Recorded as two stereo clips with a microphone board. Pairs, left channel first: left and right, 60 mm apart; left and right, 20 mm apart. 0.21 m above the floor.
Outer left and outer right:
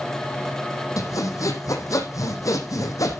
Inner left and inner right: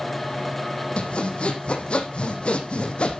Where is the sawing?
65° left (ahead or behind), 2.5 m.